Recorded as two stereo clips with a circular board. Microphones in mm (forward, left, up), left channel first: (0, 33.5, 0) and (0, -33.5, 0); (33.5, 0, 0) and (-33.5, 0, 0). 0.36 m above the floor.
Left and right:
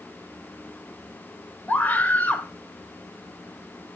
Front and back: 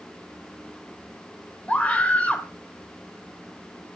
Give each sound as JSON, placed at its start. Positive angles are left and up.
{"t": 1.7, "sound": "a scream", "azimuth_deg": 50, "distance_m": 1.3}